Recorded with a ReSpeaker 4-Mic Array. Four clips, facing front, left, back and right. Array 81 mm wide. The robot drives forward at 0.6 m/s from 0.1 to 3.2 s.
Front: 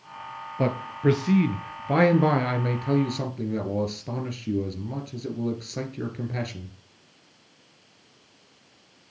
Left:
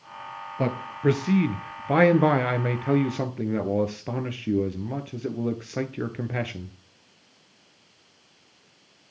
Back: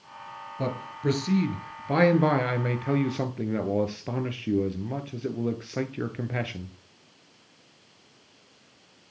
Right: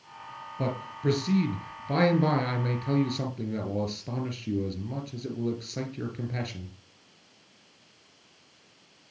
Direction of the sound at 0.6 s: 50° left.